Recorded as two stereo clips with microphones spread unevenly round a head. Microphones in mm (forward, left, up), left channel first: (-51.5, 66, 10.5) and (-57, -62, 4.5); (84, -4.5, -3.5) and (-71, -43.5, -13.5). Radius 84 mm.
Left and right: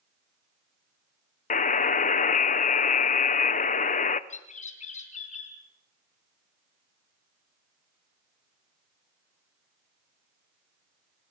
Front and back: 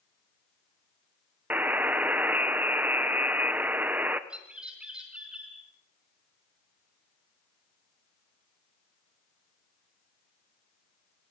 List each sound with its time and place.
1.5 s a buzzer: 110° left, 1.0 m
4.3 s a bird: 110° left, 4 m